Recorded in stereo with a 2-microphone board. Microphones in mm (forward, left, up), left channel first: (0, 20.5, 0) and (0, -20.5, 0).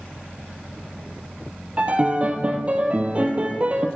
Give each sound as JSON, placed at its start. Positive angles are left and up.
{"t": 1.8, "sound": "a piano", "side_deg": -30, "distance_m": 0.6}